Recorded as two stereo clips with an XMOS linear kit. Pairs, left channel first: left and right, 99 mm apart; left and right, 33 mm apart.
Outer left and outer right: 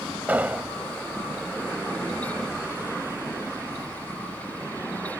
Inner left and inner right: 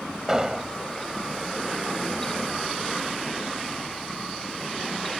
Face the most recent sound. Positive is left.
turn(degrees=-15)  # may be behind; listen again after turning